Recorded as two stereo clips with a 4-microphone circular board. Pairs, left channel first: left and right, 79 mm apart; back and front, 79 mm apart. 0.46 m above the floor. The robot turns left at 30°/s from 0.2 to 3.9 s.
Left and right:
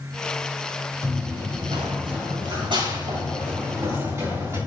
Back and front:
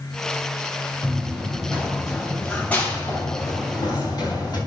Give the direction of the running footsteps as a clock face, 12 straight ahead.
2 o'clock.